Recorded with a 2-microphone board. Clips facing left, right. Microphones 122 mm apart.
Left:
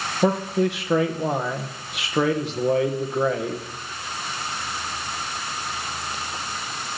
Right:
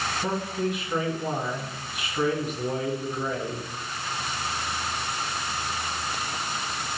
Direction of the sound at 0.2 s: 80° left.